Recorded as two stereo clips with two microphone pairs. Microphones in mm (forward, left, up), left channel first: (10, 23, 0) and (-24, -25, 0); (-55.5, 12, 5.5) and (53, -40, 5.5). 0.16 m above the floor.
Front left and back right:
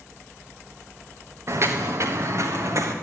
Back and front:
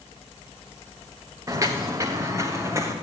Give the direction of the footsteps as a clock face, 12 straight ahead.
3 o'clock.